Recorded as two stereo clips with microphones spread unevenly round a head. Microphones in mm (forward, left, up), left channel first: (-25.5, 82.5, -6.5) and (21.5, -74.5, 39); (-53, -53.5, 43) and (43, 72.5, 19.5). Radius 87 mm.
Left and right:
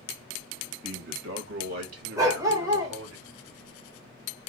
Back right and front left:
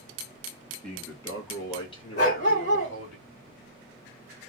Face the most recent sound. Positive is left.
turn(degrees=-125)